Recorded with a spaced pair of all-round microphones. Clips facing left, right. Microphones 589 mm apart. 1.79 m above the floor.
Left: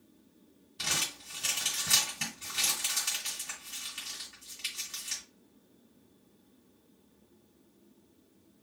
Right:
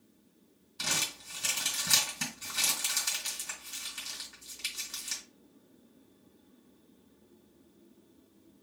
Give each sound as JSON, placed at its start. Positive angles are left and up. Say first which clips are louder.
{"t": 0.8, "sound": "crumpling", "louder": "right 1 dB", "side_deg": 5, "distance_m": 2.0}